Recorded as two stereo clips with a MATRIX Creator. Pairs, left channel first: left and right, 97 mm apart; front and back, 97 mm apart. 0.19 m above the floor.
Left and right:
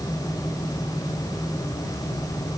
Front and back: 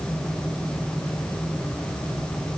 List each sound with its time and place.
Only background noise.